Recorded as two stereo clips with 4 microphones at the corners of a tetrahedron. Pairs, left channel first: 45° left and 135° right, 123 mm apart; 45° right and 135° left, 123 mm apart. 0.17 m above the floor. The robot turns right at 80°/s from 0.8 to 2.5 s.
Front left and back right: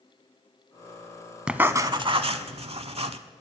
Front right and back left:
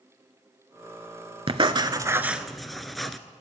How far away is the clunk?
No clunk in this recording.